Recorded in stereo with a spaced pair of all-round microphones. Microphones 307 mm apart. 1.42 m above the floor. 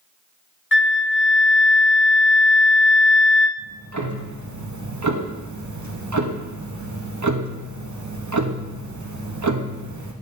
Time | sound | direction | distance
0.7 | a flute | 40° left (ahead or behind) | 0.6 m
3.6 | ticking | 70° right (ahead or behind) | 0.8 m